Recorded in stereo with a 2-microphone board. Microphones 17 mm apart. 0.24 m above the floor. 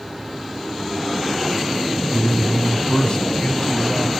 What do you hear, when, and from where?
2.1 s a man speaking: 45° left (ahead or behind), 1.3 m